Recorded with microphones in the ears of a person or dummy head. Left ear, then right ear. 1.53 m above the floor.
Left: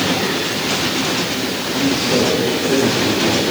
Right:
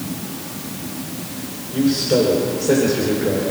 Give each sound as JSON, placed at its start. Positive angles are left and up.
{"t": 1.7, "sound": "a man speaking", "side_deg": -75, "distance_m": 5.0}